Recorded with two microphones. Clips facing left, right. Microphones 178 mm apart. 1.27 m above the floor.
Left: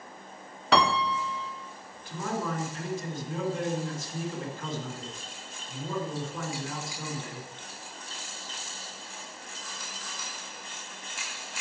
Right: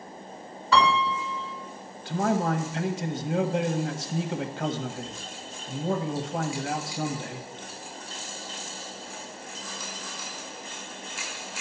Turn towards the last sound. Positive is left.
turn(degrees=-75)  # may be behind; listen again after turning